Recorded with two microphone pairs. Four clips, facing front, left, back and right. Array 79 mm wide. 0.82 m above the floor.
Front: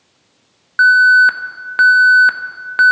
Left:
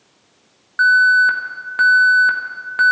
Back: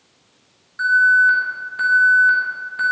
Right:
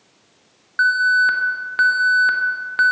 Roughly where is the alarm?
Ahead.